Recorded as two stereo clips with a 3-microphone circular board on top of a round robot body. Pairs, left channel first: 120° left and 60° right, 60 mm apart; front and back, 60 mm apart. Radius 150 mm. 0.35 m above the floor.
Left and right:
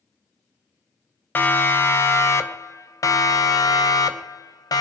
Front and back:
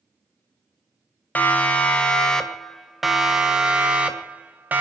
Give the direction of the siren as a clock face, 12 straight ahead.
10 o'clock.